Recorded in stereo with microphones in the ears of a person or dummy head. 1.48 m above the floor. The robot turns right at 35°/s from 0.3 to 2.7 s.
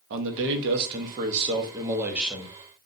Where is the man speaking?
70° right, 0.7 m; by 2.6 s 5° left, 0.7 m.